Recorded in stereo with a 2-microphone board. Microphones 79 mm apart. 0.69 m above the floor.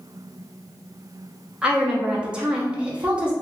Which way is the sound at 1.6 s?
15° right (ahead or behind).